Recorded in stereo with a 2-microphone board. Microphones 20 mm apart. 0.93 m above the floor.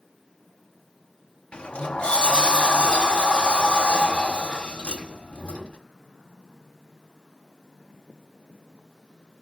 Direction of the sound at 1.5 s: 65° left (ahead or behind).